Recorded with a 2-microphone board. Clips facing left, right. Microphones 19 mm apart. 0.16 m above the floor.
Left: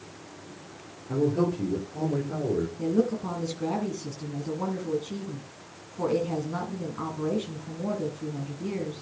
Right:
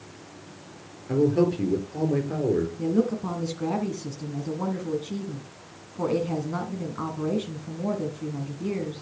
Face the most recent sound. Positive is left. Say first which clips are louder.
# right 1 dB
turn(degrees=-15)  # may be behind; listen again after turning